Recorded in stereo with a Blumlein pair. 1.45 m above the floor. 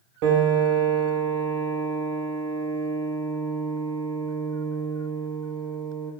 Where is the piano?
45° right, 0.6 m.